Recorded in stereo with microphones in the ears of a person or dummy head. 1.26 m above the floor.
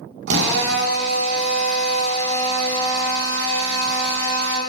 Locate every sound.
0.3 s a drill: 60° right (ahead or behind), 0.8 m